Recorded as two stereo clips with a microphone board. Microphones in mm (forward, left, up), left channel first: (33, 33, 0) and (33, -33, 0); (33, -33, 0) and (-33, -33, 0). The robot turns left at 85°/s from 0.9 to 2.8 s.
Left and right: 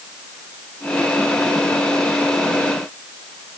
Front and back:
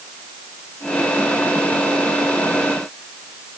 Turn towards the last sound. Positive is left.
No sound to turn to.